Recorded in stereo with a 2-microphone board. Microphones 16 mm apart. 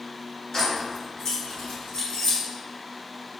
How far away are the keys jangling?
About 1.7 m.